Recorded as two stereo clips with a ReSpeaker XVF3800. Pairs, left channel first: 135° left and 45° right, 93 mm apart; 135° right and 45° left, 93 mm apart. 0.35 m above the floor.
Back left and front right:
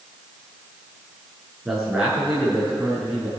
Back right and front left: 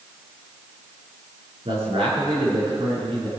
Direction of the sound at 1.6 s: 40° left.